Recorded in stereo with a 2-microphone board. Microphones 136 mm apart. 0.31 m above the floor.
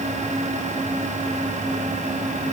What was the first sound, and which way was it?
Only background noise.